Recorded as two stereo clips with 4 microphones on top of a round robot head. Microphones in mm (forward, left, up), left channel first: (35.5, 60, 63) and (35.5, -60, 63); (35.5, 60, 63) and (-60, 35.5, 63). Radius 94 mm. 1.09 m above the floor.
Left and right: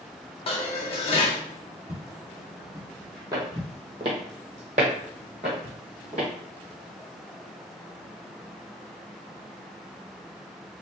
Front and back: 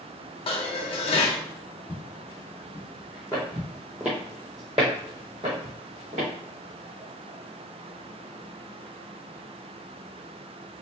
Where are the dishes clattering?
45° left, 0.9 m.